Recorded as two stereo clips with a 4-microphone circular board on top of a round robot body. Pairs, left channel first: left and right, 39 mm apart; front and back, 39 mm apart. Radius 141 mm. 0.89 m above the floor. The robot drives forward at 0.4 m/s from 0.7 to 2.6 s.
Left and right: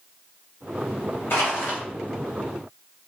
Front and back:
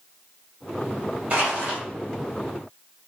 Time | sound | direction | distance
1.3 | crushing | 125° left | 2 m